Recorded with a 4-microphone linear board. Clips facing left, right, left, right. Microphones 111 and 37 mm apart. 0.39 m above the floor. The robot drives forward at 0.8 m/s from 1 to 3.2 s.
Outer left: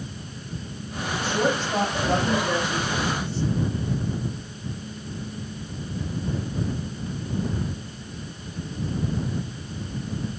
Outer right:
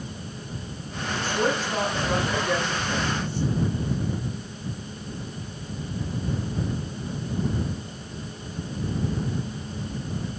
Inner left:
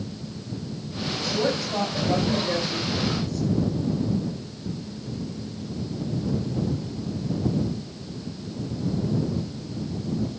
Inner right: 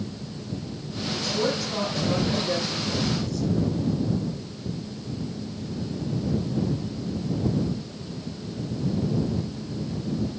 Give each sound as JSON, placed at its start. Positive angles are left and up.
{"t": 1.2, "sound": "a woman speaking", "side_deg": 30, "distance_m": 7.0}